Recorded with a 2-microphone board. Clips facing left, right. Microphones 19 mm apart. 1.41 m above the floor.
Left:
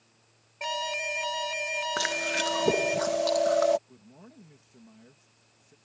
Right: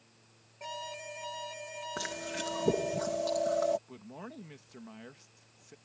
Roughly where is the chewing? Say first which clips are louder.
Left 8 dB; left.